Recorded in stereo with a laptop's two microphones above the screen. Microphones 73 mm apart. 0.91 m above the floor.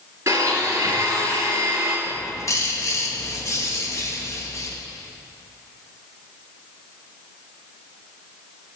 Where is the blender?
40° right (ahead or behind), 2.5 m.